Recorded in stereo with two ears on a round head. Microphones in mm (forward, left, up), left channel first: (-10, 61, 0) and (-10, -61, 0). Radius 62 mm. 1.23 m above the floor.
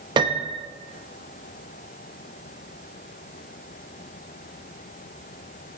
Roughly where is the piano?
Right.